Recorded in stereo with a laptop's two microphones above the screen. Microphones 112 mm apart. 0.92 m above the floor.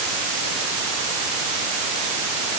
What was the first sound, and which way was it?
Only background noise.